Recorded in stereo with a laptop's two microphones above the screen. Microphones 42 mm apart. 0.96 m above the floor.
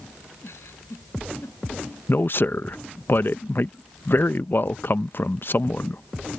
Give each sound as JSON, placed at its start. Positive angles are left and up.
{"t": 0.4, "sound": "a giggle", "side_deg": 85}
{"t": 2.1, "sound": "a man speaking", "side_deg": 55}